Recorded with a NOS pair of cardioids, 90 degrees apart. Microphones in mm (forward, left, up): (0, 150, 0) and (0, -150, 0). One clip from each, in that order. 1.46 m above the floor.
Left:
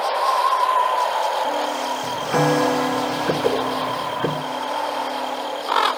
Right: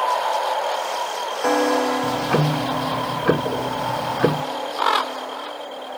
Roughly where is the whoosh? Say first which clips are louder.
Left 5 dB; ahead left.